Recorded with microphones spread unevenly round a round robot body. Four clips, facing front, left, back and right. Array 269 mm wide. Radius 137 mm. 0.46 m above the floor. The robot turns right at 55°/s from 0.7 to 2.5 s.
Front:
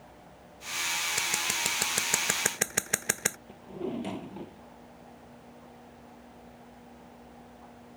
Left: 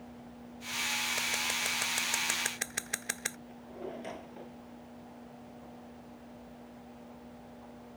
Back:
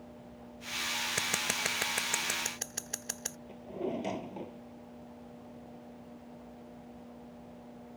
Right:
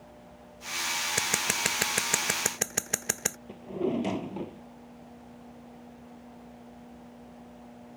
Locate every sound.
1.2 s scissors: 110° right; by 3.4 s 40° right
3.5 s a drawer: 85° right